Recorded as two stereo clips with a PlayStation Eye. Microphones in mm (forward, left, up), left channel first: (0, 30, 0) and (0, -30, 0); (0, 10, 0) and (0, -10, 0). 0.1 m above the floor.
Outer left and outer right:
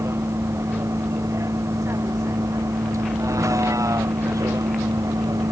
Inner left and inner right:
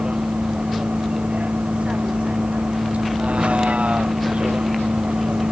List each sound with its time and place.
0.0 s a vehicle: 50° right (ahead or behind); by 5.5 s 75° right (ahead or behind)